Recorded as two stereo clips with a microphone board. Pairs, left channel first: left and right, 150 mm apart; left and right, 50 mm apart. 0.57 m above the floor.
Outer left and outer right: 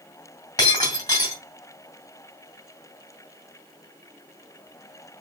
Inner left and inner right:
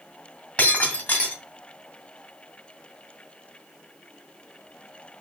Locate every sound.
0.6 s breaking glass: 30° left (ahead or behind), 2.5 m